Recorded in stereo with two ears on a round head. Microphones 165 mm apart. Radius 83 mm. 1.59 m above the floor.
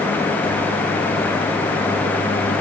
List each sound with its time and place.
Only background noise.